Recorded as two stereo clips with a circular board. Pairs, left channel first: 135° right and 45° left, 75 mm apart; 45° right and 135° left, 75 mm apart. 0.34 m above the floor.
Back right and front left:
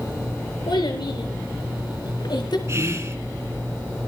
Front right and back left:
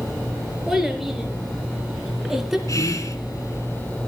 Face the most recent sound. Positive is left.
turn(degrees=-5)